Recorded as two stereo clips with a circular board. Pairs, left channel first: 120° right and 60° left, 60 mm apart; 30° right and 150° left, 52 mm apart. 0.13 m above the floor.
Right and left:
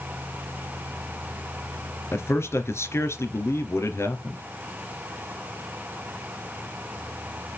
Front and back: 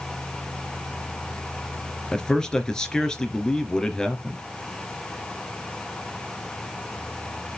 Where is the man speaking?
105° right, 2.5 m.